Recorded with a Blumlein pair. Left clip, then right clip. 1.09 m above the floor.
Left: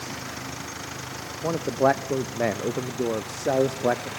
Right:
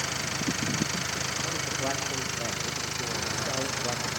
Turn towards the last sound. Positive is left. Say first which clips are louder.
# left 8 dB
turn(degrees=35)